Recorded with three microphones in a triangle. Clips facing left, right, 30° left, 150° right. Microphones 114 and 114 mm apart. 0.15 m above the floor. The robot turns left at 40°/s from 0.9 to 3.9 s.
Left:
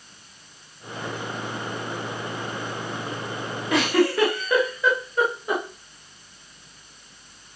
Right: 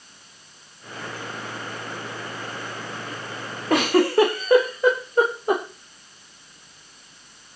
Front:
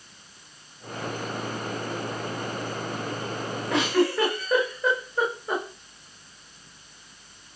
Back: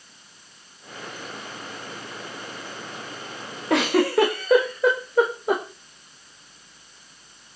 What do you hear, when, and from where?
3.7 s a giggle: 130° right, 8 m; by 5.6 s 140° right, 8 m